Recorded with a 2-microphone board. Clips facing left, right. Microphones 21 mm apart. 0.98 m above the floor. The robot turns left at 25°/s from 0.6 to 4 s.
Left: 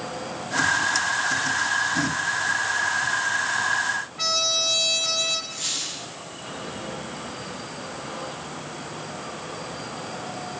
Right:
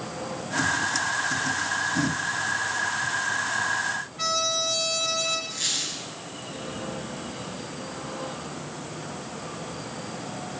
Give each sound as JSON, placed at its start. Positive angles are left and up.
{"t": 4.2, "sound": "a trumpet", "side_deg": 15, "distance_m": 2.0}
{"t": 5.5, "sound": "a squeak", "side_deg": -25, "distance_m": 7.0}